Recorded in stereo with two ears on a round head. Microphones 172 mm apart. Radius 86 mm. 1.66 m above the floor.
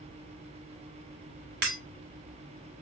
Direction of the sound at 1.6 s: 60° right (ahead or behind).